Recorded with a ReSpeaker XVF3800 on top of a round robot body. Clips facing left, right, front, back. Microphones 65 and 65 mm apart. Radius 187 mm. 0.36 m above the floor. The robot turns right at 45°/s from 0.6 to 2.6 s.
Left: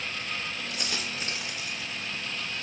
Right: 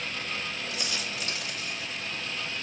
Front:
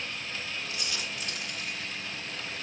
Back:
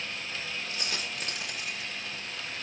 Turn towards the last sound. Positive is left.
turn(degrees=-150)